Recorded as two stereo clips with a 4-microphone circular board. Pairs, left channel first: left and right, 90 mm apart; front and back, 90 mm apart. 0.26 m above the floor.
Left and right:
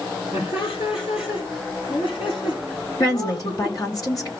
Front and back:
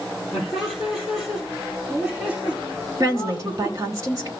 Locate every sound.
0.3 s laughter: 90° left, 6 m; by 3.8 s 110° left, 5.5 m
3.0 s a woman speaking: 130° left, 3.5 m